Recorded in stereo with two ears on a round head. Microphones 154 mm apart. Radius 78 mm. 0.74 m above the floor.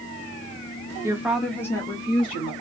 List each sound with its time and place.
1.0 s a woman speaking: 20° right (ahead or behind), 0.8 m; by 2.5 s 35° left (ahead or behind), 1.4 m